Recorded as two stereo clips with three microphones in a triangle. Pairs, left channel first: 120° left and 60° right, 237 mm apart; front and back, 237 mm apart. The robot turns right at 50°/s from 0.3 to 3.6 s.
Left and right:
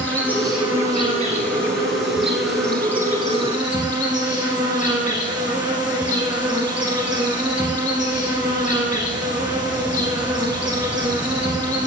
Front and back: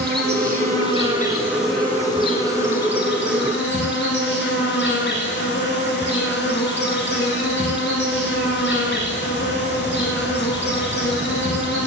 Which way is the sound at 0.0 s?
160° right.